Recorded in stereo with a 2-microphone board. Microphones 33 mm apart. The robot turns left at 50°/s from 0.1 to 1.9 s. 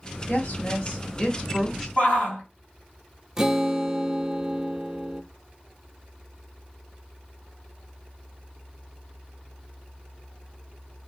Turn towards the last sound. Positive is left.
turn(degrees=-20)  # may be behind; listen again after turning